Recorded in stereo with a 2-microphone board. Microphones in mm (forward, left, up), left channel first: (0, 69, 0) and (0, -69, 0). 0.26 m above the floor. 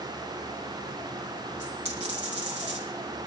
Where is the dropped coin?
50° right (ahead or behind), 4 m.